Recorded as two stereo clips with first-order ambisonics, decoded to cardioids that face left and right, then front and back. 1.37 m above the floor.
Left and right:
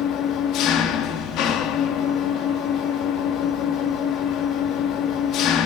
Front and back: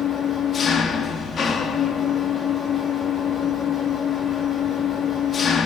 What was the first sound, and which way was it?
An engine running, 60° left.